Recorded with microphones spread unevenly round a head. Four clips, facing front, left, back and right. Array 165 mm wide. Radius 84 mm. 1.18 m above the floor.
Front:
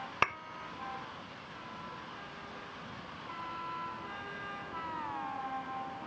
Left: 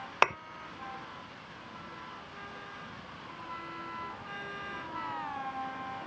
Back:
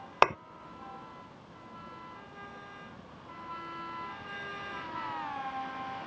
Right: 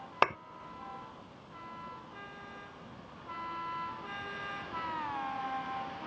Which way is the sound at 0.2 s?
175° right.